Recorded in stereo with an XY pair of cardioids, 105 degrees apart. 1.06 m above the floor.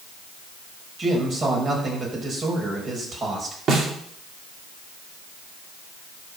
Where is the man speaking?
40° right, 5 m.